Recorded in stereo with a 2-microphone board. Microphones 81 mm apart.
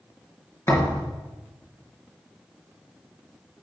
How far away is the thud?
About 2 m.